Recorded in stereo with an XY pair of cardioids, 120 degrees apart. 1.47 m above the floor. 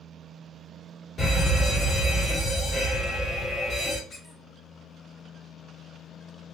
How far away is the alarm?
About 2 m.